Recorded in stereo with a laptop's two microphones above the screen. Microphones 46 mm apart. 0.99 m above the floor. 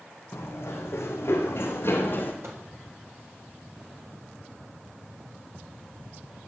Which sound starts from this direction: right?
A microwave, at 2.4 s.